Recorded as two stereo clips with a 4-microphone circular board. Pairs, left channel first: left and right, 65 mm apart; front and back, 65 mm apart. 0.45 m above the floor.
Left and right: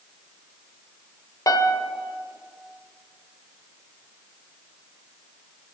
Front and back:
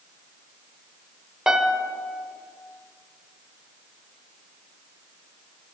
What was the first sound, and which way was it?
A piano, 100° left.